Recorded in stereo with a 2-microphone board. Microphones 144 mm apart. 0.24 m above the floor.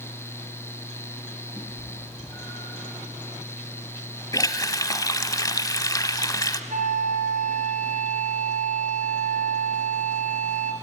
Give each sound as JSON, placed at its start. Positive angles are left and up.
{"t": 1.6, "sound": "a cat meowing", "side_deg": 15, "distance_m": 4.0}
{"t": 4.3, "sound": "a running tap", "side_deg": 25, "distance_m": 1.0}
{"t": 6.7, "sound": "a flute", "side_deg": -70, "distance_m": 2.5}